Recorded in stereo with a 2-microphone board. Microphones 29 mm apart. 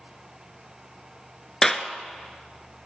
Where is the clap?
15° left (ahead or behind), 1.2 m.